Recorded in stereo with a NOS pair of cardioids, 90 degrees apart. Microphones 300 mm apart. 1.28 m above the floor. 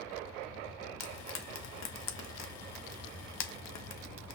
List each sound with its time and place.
1.0 s frying: 60° left, 0.7 m